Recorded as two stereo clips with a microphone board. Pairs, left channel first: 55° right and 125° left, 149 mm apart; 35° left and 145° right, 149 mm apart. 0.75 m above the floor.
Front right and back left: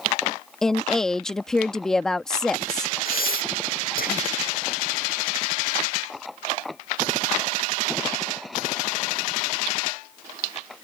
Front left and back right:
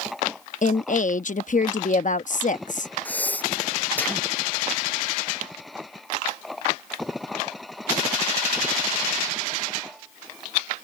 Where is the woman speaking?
30° left.